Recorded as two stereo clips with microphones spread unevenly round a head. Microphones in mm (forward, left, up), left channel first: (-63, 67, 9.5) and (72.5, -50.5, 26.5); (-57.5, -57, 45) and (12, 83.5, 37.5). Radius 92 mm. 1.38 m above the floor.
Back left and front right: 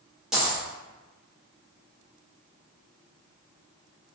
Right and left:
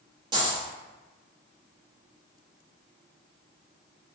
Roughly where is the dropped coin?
Ahead left.